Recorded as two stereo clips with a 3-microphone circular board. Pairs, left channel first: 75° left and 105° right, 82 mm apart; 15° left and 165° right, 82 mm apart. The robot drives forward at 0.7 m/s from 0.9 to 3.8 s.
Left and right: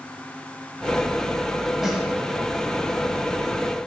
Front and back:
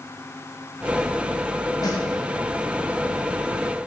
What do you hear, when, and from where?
1.8 s a snare drum: 20° right, 1.4 m